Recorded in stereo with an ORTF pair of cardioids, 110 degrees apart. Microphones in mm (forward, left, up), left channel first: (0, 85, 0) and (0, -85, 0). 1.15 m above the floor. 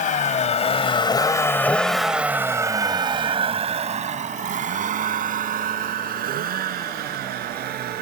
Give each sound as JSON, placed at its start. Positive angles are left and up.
{"t": 0.0, "sound": "a vehicle", "azimuth_deg": 50}